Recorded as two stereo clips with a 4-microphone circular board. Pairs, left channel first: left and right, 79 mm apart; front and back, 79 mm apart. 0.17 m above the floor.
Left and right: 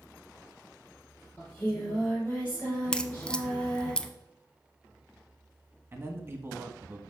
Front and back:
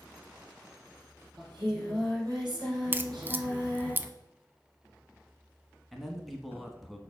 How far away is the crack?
About 0.5 m.